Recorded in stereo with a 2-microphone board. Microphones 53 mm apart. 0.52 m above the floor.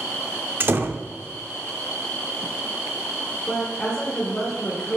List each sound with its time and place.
0.6 s a door slam: 45° right (ahead or behind), 0.6 m
3.5 s a woman speaking: 15° left (ahead or behind), 1.6 m